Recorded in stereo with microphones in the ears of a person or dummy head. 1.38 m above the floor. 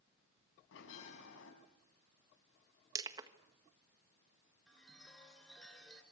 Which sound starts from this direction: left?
A bell, at 0.7 s.